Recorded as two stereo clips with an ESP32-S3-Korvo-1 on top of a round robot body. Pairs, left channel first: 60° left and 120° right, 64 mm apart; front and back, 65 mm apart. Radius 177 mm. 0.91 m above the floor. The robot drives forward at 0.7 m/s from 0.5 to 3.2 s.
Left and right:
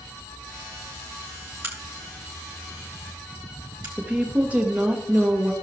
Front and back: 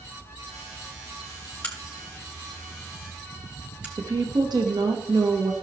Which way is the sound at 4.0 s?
175° left.